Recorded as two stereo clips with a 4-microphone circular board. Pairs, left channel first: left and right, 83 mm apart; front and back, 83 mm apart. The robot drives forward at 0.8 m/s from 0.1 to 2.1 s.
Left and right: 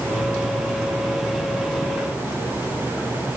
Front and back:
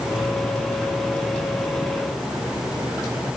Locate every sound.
Only background noise.